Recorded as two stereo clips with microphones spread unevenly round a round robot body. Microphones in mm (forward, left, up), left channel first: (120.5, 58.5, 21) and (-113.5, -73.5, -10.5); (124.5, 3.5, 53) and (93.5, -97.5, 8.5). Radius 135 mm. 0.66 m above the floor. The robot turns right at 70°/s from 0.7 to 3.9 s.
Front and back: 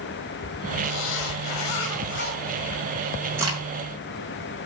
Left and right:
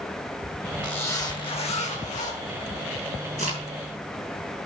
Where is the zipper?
15° right, 2.5 m; by 2.4 s 95° left, 2.5 m.